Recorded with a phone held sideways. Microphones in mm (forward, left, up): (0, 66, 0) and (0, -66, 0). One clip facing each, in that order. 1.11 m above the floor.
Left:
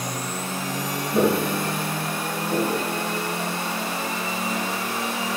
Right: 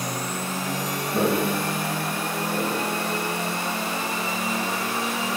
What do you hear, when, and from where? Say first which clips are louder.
1.1 s footsteps: left 2 dB; 20° left (ahead or behind), 1.4 m; by 2.9 s 45° left (ahead or behind), 2.5 m